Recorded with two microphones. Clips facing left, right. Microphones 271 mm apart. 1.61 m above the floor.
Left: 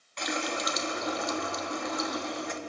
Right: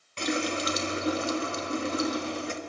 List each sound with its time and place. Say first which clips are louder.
0.2 s a running tap: right 5 dB; 35° right (ahead or behind), 1.6 m